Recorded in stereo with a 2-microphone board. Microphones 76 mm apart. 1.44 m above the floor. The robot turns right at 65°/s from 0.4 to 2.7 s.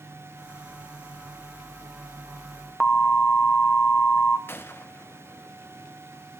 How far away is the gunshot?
About 0.7 m.